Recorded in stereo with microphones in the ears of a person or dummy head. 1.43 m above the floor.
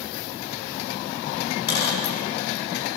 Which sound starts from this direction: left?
A dropped coin, at 1.7 s.